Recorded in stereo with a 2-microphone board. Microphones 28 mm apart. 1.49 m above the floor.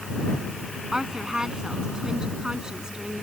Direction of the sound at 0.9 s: 20° right (ahead or behind).